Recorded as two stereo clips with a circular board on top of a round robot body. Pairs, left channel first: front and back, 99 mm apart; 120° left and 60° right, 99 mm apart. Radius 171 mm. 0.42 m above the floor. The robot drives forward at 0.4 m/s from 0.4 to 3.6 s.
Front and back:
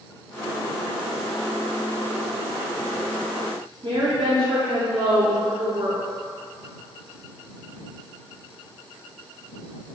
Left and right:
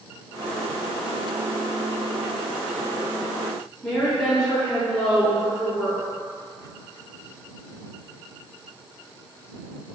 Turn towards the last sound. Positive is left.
turn(degrees=-155)